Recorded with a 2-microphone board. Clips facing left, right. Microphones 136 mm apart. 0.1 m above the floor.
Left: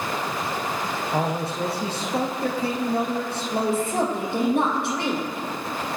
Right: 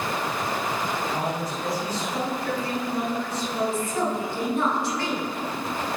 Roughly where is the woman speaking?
Left.